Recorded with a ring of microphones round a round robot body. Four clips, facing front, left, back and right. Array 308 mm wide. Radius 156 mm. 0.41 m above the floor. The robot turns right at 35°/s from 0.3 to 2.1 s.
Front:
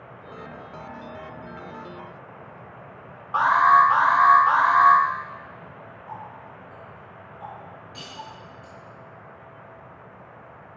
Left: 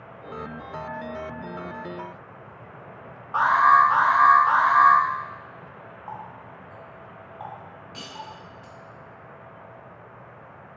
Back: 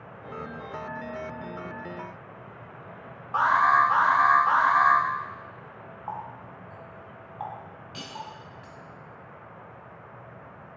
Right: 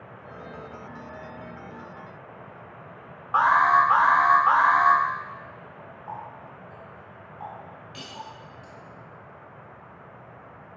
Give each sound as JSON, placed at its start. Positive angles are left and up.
{"t": 3.3, "sound": "an alarm", "azimuth_deg": -80, "distance_m": 1.2}
{"t": 6.1, "sound": "a running tap", "azimuth_deg": 170, "distance_m": 2.0}
{"t": 7.9, "sound": "cutlery clinking", "azimuth_deg": -170, "distance_m": 2.5}